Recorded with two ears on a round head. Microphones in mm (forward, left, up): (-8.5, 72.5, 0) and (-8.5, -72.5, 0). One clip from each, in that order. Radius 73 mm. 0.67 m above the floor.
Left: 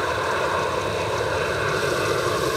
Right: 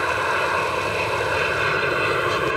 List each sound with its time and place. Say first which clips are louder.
0.0 s an aircraft: right 2 dB; 60° right (ahead or behind)